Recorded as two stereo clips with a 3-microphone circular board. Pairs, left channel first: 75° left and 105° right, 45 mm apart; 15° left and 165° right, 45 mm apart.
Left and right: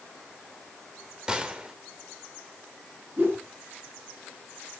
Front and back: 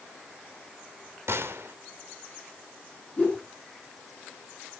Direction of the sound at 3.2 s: 50° right.